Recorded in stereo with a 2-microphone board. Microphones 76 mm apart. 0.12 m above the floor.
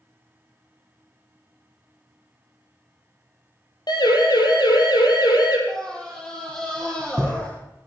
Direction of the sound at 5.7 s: 5° left (ahead or behind).